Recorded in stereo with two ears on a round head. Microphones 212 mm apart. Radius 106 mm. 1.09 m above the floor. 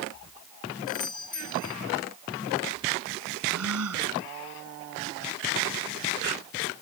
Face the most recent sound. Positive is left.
turn(degrees=-70)  # may be behind; listen again after turning